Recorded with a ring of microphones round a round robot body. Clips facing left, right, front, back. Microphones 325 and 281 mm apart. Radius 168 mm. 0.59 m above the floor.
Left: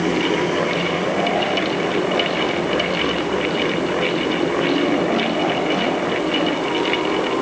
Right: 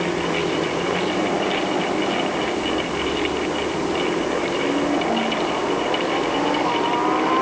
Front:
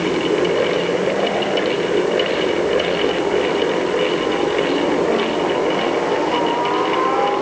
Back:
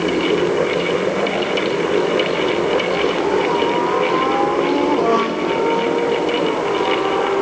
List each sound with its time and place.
Only background noise.